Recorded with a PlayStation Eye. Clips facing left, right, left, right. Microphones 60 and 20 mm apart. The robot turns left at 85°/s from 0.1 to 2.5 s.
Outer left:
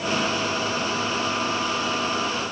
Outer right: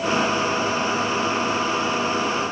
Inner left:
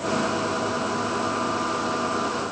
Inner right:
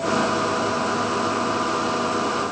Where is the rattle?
No rattle in this recording.